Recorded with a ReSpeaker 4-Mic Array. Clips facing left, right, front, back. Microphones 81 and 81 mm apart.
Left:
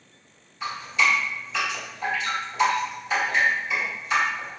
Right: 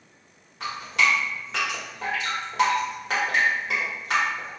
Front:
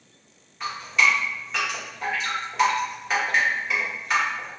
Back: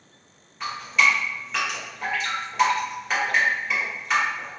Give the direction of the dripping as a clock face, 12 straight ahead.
3 o'clock.